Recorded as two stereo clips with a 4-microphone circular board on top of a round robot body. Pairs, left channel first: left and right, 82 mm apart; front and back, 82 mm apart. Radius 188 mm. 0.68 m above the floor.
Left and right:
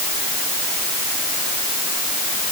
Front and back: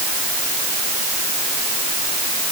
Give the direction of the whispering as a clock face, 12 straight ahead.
I don't hear whispering.